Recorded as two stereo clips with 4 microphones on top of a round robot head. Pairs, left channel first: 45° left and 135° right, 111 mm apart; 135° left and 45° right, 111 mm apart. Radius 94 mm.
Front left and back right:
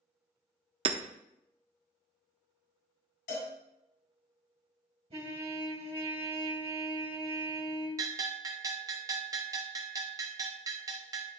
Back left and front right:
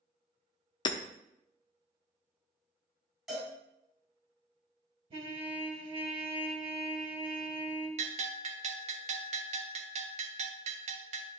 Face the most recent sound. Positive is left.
turn(degrees=-75)